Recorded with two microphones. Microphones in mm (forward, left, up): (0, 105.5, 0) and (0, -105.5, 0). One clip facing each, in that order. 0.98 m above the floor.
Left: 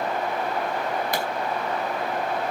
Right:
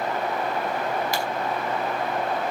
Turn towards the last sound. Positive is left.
turn(degrees=55)  # may be behind; listen again after turning